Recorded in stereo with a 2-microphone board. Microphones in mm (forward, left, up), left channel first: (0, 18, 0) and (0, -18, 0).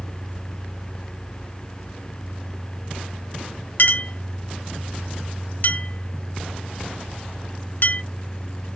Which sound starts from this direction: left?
A clink, at 3.8 s.